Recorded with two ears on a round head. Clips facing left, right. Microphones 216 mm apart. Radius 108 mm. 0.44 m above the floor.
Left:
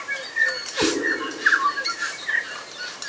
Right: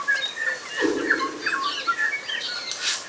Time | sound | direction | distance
0.8 | a cat meowing | 75° left (ahead or behind) | 1.0 m